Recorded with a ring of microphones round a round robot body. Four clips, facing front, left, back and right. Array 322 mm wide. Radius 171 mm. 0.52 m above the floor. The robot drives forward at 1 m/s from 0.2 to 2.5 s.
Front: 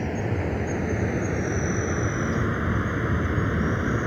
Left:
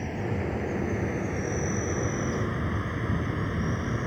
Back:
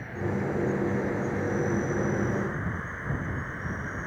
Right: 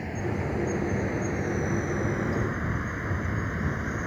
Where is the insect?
5° left.